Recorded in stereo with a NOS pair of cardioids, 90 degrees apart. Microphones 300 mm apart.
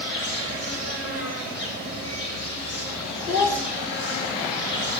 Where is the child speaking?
10° left, 1.9 m.